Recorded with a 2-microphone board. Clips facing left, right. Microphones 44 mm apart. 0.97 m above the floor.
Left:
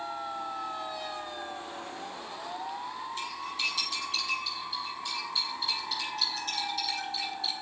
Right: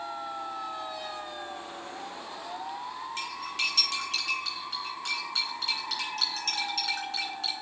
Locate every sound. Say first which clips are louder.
3.2 s cutlery clinking: right 3 dB; 90° right, 3.5 m